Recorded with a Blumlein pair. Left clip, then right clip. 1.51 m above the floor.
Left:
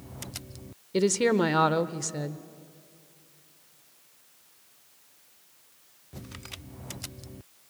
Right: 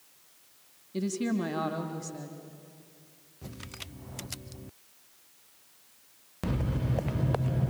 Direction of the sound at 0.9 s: 30° left.